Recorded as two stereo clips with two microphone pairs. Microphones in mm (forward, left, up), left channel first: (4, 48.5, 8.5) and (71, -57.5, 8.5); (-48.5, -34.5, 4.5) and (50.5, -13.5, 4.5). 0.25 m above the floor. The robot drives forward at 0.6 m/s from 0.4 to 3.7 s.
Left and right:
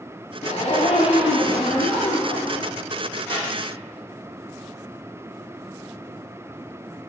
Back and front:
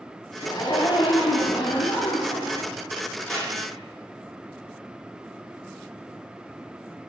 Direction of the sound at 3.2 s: 145° left.